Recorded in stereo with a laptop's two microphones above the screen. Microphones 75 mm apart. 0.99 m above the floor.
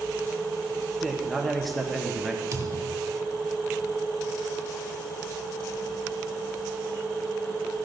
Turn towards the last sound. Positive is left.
turn(degrees=-45)  # may be behind; listen again after turning